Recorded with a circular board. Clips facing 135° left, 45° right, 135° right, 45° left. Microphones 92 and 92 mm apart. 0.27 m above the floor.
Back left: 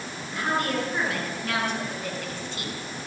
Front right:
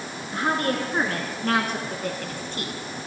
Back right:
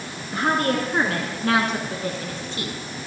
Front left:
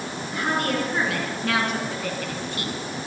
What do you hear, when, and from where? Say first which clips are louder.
0.3 s a woman speaking: front right 2 dB, back right 3 dB; 90° right, 4.5 m; by 2.7 s 70° right, 2.5 m